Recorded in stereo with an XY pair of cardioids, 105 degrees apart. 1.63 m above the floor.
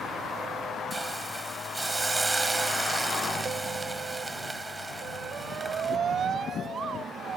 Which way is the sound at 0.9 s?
20° right.